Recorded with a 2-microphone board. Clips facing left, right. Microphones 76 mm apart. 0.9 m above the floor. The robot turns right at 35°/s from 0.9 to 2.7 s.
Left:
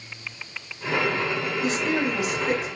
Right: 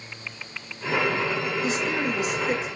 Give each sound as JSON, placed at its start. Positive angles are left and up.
{"t": 1.6, "sound": "a woman speaking", "azimuth_deg": 85, "distance_m": 1.6}